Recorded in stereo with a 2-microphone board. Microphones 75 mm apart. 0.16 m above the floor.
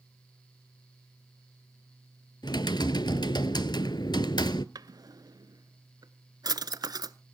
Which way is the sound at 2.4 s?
75° left (ahead or behind).